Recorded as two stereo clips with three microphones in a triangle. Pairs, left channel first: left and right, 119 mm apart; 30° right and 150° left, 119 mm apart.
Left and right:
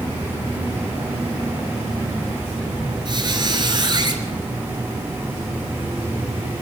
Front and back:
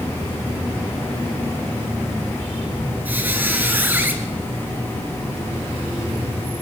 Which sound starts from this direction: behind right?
A squeak, at 3.0 s.